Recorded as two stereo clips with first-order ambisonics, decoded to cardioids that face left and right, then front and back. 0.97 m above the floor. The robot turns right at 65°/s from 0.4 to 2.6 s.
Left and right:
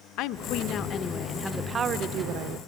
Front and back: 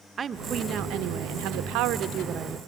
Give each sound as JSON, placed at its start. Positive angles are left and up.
{"t": 0.2, "sound": "a woman speaking", "azimuth_deg": 110, "distance_m": 0.7}